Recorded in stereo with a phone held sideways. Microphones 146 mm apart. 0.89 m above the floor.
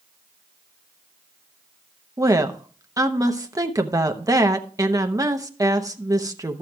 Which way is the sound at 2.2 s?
25° right (ahead or behind).